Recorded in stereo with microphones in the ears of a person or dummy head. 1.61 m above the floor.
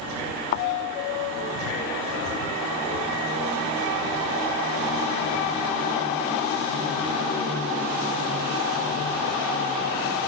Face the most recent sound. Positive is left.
turn(degrees=35)  # may be behind; listen again after turning